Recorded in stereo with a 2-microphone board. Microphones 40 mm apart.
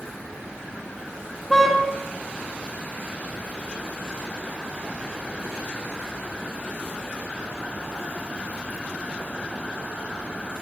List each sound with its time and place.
1.5 s a car horn: 10° left (ahead or behind), 5 m